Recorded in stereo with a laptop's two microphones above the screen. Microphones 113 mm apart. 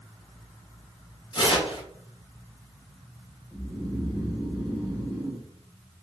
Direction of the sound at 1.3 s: 40° left (ahead or behind).